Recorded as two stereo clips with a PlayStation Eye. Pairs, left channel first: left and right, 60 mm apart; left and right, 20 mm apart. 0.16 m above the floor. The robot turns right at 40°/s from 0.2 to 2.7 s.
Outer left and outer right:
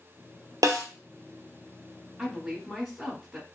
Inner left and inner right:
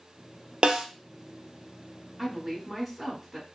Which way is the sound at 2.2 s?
5° right (ahead or behind).